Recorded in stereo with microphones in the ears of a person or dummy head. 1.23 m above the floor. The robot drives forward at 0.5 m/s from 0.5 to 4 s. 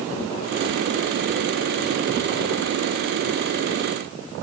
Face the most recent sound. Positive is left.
No sound to turn to.